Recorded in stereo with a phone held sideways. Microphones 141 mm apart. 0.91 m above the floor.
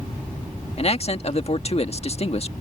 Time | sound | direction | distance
0.8 | a man speaking | 45° left (ahead or behind) | ?